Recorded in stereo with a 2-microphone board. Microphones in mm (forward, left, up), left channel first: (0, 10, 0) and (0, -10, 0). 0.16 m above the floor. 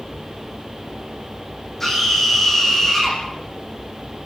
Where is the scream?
15° left (ahead or behind), 9 m.